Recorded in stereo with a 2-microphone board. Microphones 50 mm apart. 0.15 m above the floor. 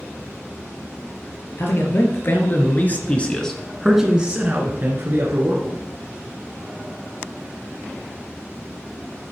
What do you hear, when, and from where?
1.6 s a man speaking: 55° left (ahead or behind), 3 m; by 5.8 s 60° right (ahead or behind), 2.5 m